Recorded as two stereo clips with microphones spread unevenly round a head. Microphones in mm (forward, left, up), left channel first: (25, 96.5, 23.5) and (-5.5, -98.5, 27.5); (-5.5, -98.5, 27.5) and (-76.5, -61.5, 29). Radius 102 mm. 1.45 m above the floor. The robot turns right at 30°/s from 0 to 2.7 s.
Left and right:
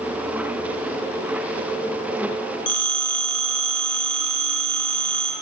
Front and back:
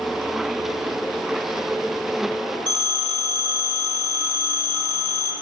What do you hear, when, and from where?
2.7 s a phone ringing: 90° left, 1.9 m